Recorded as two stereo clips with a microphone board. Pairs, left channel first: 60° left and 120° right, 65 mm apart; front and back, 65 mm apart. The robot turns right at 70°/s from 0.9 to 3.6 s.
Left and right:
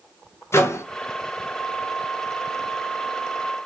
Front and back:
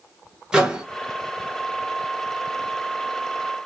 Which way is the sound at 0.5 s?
100° left.